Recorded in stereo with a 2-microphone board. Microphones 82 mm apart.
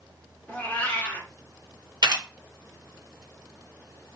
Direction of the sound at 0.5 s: 20° left (ahead or behind).